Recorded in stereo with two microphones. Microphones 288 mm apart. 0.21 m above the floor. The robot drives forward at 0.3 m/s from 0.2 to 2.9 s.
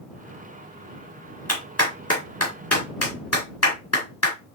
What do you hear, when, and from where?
1.5 s a clap: 60° left (ahead or behind), 2.5 m; by 4.3 s 65° left (ahead or behind), 2.5 m